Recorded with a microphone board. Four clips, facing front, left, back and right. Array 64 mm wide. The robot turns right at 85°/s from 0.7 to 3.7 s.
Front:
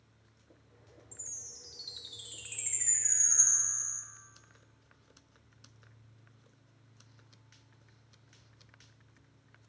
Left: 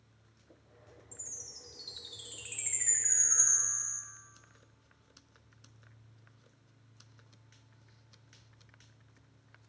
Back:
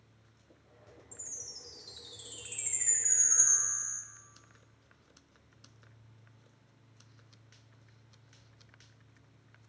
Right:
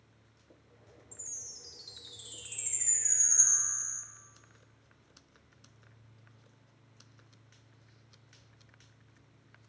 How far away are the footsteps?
I don't hear footsteps.